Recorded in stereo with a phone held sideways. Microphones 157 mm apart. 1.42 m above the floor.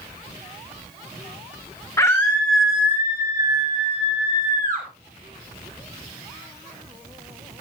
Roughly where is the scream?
Centre.